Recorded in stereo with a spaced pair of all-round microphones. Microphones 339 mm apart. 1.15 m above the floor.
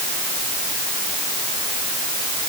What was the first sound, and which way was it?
Only background noise.